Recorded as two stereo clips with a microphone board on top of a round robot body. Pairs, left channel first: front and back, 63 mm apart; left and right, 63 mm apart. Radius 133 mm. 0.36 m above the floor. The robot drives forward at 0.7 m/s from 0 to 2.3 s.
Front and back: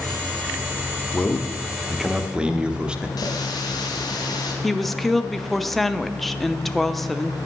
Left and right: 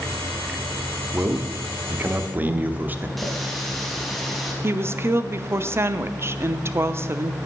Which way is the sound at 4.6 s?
85° right.